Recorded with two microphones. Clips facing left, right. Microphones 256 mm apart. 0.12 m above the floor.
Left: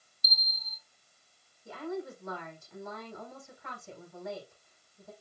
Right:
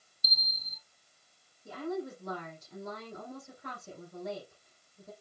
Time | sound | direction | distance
0.2 | a bell | 65° right (ahead or behind) | 1.2 m
1.6 | a woman speaking | 45° right (ahead or behind) | 6 m